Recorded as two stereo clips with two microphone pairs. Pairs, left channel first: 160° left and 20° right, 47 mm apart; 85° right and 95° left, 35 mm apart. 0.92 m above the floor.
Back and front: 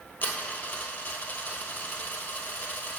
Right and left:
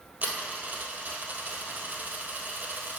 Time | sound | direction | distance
0.2 | a dropped coin | 115° left | 1.4 m